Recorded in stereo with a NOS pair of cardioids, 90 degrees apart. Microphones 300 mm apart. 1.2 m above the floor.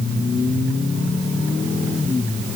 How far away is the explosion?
No explosion in this recording.